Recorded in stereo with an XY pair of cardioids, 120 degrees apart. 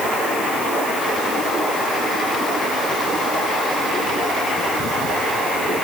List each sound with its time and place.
Only background noise.